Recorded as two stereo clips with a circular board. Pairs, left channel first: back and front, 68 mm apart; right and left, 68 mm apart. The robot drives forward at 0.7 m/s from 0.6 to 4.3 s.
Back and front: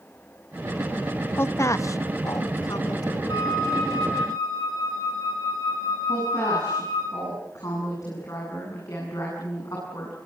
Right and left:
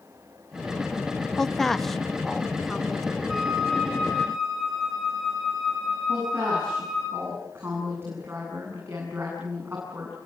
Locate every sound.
1.4 s a woman speaking: 170° right, 0.6 m; by 3.2 s straight behind, 1.7 m
3.3 s a flute: 175° left, 7.5 m
6.1 s a woman speaking: 145° left, 8 m